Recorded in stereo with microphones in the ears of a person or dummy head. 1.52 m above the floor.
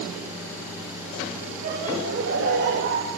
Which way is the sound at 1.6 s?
50° right (ahead or behind).